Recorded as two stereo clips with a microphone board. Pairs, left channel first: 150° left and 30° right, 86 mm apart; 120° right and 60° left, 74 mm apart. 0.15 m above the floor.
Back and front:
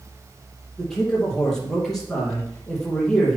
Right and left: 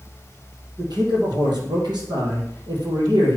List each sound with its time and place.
0.8 s a man speaking: 65° left, 4.5 m